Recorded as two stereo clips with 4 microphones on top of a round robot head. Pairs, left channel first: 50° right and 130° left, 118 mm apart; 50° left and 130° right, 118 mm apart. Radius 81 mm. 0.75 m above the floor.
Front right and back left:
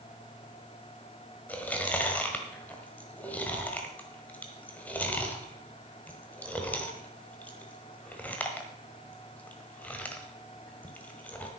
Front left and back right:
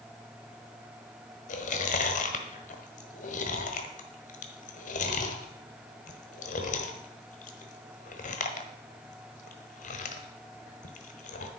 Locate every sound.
1.5 s chewing: 30° left, 1.4 m